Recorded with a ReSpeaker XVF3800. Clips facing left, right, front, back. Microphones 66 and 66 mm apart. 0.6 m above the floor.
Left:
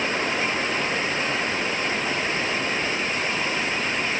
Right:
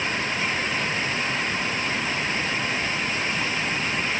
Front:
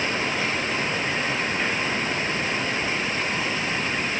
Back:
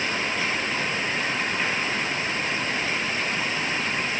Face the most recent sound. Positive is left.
No sound to turn to.